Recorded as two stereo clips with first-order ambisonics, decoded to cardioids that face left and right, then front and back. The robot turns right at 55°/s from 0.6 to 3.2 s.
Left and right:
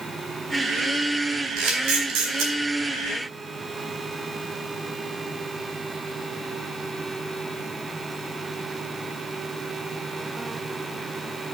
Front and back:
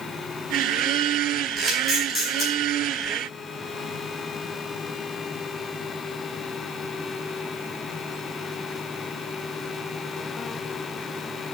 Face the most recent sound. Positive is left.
turn(degrees=-25)